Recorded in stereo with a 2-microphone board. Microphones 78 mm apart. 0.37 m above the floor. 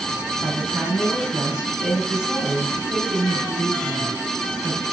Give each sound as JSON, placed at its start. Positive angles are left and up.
{"t": 0.4, "sound": "a woman speaking", "side_deg": -10, "distance_m": 3.0}